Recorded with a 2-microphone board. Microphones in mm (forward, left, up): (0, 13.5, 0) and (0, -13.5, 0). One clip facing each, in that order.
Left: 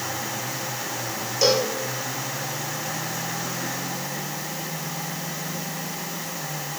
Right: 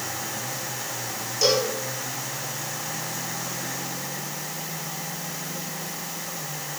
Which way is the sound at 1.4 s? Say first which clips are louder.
Left 1 dB; 20° left (ahead or behind).